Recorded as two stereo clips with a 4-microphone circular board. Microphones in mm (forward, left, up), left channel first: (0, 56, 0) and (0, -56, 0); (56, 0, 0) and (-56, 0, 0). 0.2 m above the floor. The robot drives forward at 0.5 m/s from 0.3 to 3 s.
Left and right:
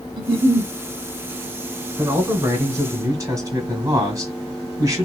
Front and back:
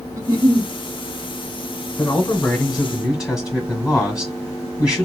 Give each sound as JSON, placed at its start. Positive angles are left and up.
{"t": 0.2, "sound": "a giggle", "azimuth_deg": -130, "distance_m": 0.8}
{"t": 2.0, "sound": "a man speaking", "azimuth_deg": -65, "distance_m": 1.7}